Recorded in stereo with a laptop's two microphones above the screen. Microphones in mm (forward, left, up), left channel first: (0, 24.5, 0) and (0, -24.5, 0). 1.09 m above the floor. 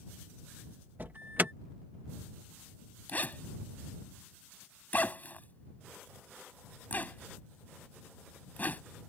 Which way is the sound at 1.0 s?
40° right (ahead or behind).